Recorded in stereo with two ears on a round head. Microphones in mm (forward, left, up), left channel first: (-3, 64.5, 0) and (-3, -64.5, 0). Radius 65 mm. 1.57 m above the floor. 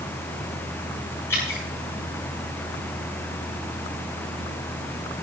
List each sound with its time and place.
1.3 s dripping: 20° left (ahead or behind), 9 m